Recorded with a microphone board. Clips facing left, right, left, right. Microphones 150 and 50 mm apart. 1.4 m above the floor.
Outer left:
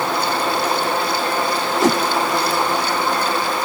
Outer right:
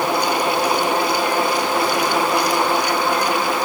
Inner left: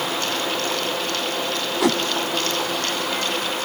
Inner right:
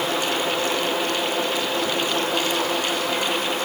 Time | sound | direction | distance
1.8 | a whoosh | 75° left (ahead or behind) | ?